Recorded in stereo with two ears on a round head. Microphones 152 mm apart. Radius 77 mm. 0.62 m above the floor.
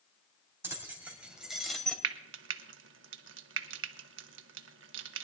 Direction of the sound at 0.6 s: 15° right (ahead or behind).